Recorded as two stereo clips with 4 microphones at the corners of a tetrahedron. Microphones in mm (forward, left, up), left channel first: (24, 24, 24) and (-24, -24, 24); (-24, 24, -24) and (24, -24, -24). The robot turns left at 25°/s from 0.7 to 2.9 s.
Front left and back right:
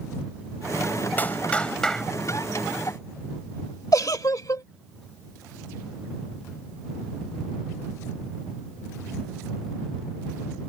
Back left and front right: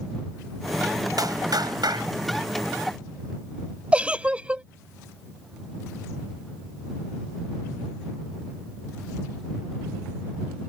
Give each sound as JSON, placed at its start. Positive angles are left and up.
{"t": 1.2, "sound": "a clap", "azimuth_deg": -20}
{"t": 3.9, "sound": "a giggle", "azimuth_deg": 25}